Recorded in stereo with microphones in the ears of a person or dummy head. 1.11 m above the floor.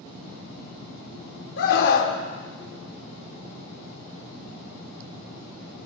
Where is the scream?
65° left (ahead or behind), 4 m.